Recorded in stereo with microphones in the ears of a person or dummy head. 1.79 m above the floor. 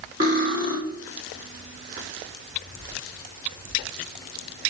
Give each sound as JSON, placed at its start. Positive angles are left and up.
{"t": 0.2, "sound": "cutlery clinking", "side_deg": -20, "distance_m": 0.9}